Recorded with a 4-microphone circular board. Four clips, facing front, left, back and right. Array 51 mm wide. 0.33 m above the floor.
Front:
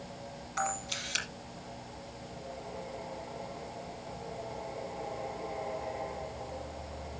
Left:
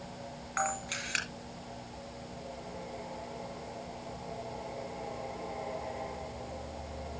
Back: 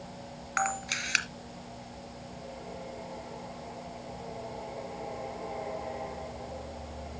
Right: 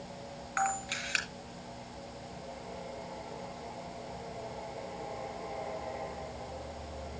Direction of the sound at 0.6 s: Straight behind.